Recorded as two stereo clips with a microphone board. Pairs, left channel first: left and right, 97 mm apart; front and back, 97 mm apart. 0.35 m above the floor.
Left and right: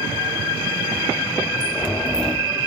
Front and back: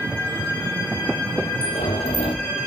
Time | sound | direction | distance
1.6 | a sliding door | 5° left | 3 m